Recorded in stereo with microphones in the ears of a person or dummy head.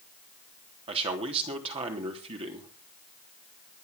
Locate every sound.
0.9 s a man speaking: 35° right (ahead or behind), 3 m